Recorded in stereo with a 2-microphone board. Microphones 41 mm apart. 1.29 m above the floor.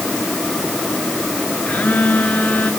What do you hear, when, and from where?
1.7 s a phone buzzing: 35° left (ahead or behind), 3.5 m